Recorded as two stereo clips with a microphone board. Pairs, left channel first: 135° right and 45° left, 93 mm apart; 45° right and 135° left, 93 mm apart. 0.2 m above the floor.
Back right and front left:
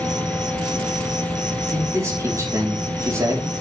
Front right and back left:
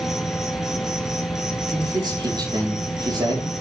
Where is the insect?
10° left, 1.5 m.